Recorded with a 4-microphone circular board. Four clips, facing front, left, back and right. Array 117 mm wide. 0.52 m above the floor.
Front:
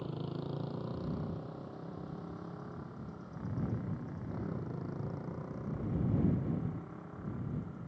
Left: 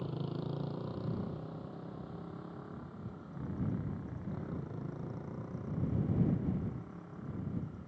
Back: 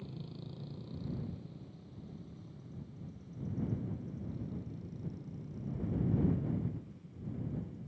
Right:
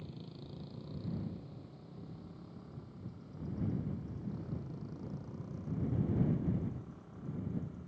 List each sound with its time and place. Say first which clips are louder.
0.0 s a motorcycle: left 10 dB, front 7 dB; 45° left; by 7.9 s 15° left